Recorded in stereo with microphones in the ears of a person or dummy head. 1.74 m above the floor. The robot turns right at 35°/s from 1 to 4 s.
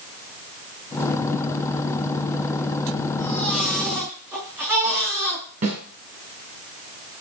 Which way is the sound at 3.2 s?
20° left (ahead or behind).